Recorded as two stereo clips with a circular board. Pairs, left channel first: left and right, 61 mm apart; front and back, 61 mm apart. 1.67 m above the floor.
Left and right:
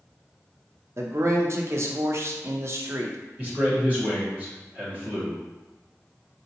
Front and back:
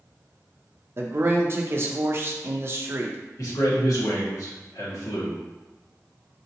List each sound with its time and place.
1.0 s a man speaking: 130° right, 0.6 m
3.4 s a man speaking: 25° right, 1.7 m